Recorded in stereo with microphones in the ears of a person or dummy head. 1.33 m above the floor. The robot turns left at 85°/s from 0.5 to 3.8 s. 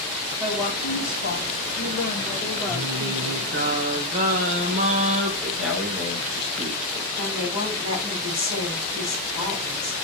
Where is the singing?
40° right, 1.9 m; by 5.3 s 135° right, 1.9 m.